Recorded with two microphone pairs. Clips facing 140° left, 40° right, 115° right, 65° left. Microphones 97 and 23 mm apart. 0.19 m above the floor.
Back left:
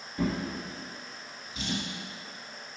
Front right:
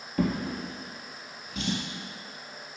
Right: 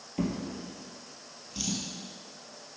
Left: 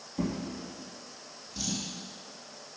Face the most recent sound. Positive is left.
turn(degrees=-65)